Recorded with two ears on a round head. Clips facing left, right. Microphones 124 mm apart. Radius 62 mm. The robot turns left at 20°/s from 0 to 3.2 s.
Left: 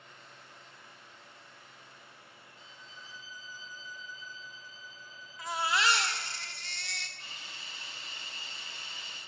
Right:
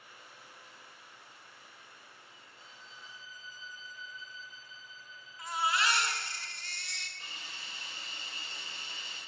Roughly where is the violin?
Left.